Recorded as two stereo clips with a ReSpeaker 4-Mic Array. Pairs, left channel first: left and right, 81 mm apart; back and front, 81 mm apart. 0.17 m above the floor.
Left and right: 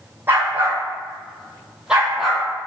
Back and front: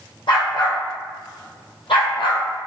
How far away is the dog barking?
About 4 m.